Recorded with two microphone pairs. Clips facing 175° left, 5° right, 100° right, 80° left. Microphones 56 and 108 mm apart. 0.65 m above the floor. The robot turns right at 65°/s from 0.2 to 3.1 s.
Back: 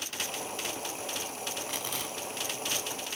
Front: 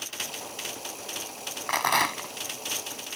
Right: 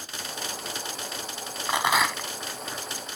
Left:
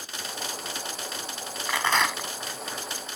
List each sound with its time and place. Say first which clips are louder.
1.7 s a rattle: front 12 dB, right 1 dB; 35° right; by 2.3 s 5° left